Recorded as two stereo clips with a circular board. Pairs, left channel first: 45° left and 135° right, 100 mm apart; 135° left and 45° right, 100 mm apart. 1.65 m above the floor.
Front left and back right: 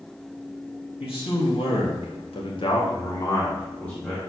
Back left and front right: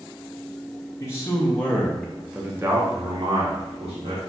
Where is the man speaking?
75° left, 1.6 m; by 4.2 s 40° right, 1.5 m.